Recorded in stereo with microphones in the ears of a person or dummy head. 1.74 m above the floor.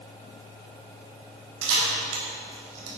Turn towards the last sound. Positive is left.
turn(degrees=-75)  # may be behind; listen again after turning